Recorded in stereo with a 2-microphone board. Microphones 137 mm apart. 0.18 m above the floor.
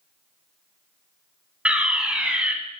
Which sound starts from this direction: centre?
A fire alarm, at 1.6 s.